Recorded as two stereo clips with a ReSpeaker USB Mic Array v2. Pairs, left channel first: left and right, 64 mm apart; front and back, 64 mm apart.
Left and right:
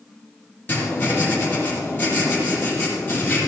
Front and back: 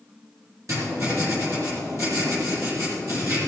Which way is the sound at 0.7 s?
145° left.